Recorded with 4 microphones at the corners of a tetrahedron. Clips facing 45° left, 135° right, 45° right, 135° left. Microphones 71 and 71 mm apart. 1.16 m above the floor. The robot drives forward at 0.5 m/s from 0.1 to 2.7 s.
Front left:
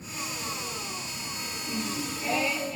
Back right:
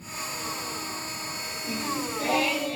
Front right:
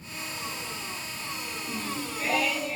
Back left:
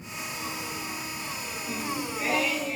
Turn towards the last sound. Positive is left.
turn(degrees=-145)